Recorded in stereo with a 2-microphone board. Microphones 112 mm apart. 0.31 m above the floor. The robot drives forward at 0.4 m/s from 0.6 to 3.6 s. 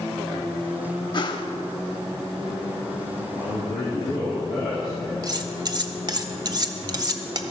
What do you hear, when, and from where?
1.1 s a whoosh: 40° left (ahead or behind), 0.6 m; by 1.5 s 45° left (ahead or behind), 0.6 m
3.3 s a man speaking: 35° left (ahead or behind), 3 m
5.2 s cutlery clinking: 40° right (ahead or behind), 0.6 m